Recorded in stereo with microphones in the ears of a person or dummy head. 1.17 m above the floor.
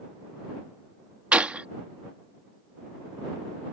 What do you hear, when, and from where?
1.3 s a gunshot: 5° right (ahead or behind)